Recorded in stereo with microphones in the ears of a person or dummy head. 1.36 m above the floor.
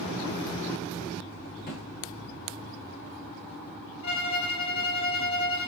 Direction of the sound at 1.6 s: 45° left (ahead or behind).